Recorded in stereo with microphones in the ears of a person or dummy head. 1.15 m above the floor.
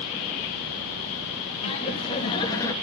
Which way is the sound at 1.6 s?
35° left (ahead or behind).